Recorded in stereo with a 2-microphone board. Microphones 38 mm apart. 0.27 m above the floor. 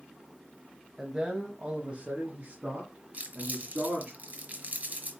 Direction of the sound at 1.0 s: 10° right (ahead or behind).